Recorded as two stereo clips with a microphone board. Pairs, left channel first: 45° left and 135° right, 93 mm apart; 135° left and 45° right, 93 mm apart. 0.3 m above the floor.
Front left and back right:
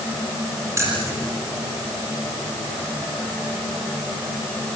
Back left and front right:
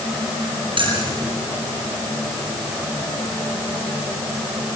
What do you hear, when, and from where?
0.8 s keys jangling: 75° right, 6.5 m